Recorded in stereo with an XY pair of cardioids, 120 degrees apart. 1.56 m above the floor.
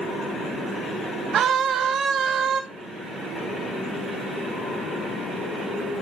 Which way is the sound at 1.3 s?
60° right.